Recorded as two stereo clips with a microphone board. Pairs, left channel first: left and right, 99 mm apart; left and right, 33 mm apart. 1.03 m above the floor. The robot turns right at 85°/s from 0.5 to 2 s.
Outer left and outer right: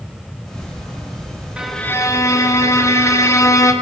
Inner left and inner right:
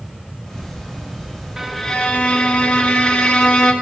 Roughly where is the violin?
Ahead.